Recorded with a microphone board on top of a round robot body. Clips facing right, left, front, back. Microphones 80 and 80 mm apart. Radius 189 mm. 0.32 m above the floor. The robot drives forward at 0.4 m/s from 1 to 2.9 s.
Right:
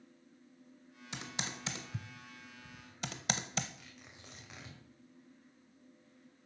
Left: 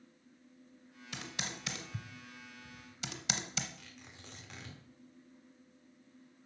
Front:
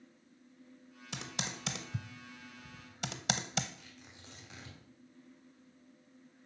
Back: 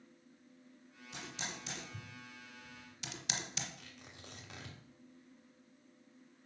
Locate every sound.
1.1 s typing on a keyboard: 20° right, 1.4 m; by 3.7 s 45° right, 0.8 m
3.8 s tearing paper: 170° right, 2.5 m